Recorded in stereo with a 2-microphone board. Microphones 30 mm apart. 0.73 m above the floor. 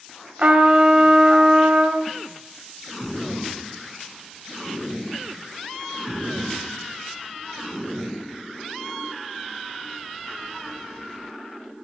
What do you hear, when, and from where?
0.4 s a trumpet: 40° right (ahead or behind), 1.8 m